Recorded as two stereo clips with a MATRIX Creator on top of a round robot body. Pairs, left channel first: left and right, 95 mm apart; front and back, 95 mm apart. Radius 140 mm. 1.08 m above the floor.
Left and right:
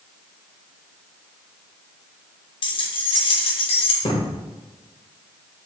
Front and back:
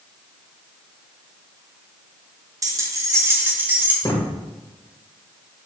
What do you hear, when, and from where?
2.6 s keys jangling: 125° left, 1.5 m; by 3.9 s 110° left, 1.9 m
4.0 s a thud: 60° left, 2.5 m